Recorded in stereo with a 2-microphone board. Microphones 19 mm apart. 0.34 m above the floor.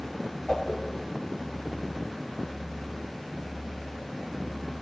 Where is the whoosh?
55° left (ahead or behind), 2 m.